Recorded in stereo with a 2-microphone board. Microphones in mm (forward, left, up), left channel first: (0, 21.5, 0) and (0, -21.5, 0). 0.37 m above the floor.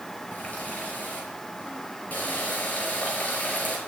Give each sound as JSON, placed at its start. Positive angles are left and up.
{"t": 0.3, "sound": "a running tap", "side_deg": 35, "distance_m": 5.0}